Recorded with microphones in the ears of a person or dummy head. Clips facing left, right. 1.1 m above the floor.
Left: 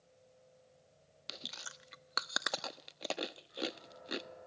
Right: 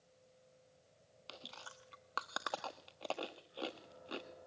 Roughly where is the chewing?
Left.